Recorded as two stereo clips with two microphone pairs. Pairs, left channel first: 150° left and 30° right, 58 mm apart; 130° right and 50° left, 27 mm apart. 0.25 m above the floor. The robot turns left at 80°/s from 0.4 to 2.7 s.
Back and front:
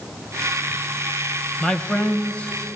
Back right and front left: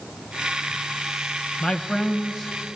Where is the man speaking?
145° right, 1.2 m; by 2.5 s 140° left, 1.2 m.